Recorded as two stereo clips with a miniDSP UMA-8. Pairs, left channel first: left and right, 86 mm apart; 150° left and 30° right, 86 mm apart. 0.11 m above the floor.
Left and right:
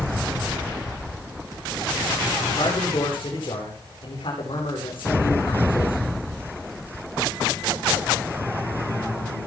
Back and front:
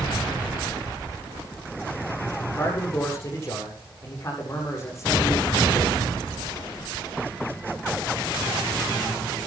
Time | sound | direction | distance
2.5 | a man speaking | 95° left | 8 m